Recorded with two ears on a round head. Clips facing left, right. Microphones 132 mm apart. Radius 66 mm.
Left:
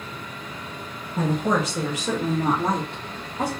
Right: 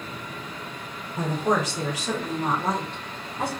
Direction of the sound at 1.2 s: 65° left (ahead or behind).